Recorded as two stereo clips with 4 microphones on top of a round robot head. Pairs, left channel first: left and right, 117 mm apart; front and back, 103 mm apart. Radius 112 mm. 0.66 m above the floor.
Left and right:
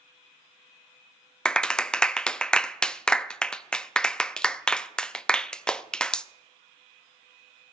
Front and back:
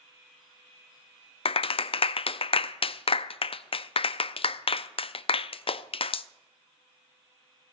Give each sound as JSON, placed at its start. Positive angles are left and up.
{"t": 1.4, "sound": "a clap", "azimuth_deg": 10, "distance_m": 0.5}